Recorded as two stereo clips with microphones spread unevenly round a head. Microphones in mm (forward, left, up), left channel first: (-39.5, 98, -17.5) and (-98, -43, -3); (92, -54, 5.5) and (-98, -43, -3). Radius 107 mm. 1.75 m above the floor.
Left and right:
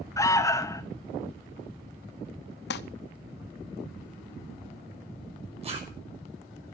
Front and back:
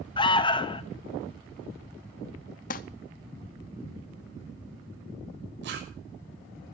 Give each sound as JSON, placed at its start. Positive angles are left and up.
{"t": 0.2, "sound": "an alarm", "azimuth_deg": 35, "distance_m": 0.7}
{"t": 2.7, "sound": "crumpling", "azimuth_deg": 45, "distance_m": 0.6}
{"t": 5.6, "sound": "a zipper", "azimuth_deg": -160, "distance_m": 6.5}